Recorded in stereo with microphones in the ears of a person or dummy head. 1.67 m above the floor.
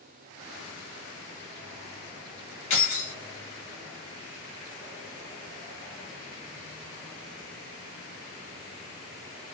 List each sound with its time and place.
2.7 s keys jangling: 50° left (ahead or behind), 1.4 m